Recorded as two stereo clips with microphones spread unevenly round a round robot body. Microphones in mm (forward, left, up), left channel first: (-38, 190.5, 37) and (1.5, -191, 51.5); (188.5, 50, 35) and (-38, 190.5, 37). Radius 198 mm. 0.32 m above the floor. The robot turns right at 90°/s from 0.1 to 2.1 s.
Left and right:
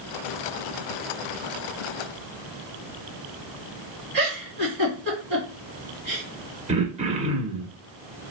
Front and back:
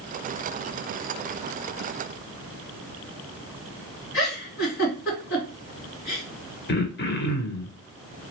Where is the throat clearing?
15° right, 0.9 m.